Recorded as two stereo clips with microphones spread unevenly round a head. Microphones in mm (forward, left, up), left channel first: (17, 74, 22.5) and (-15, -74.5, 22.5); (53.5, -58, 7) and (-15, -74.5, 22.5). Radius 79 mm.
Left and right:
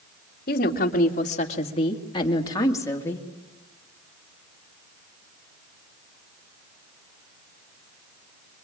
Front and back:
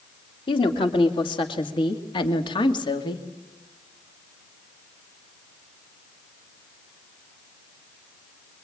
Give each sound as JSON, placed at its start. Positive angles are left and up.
{"t": 0.5, "sound": "a woman speaking", "azimuth_deg": 45, "distance_m": 2.5}